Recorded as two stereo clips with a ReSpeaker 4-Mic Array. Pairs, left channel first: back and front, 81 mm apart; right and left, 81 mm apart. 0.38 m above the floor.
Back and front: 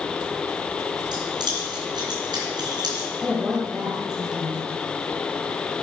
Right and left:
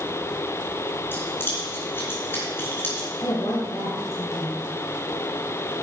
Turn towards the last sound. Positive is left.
turn(degrees=-85)